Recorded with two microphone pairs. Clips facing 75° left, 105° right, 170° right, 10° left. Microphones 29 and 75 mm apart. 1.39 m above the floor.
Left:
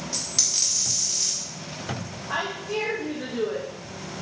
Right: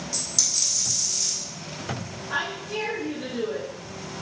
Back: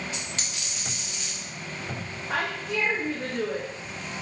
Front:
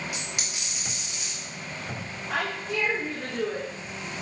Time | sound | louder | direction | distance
0.1 | a dropped coin | even, even | 65° left | 0.9 m
2.3 | a woman speaking | left 1 dB, back 1 dB | 115° left | 1.0 m